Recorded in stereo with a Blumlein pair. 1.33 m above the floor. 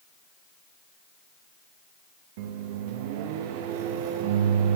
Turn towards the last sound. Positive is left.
turn(degrees=-50)